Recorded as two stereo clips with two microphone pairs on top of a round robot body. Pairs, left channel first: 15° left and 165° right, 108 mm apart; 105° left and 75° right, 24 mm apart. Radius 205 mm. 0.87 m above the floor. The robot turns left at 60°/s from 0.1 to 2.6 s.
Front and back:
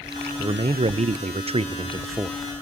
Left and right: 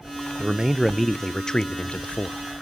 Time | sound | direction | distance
0.4 | a man speaking | 125° right | 0.6 m